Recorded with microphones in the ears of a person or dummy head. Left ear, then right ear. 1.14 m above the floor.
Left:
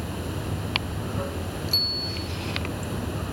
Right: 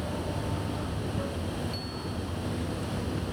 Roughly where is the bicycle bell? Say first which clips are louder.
Left 12 dB; left.